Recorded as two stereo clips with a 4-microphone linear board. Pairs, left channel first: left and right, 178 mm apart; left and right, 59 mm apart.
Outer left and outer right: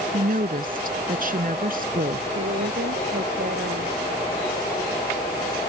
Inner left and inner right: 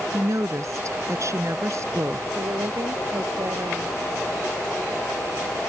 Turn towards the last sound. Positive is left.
turn(degrees=-75)  # may be behind; listen again after turning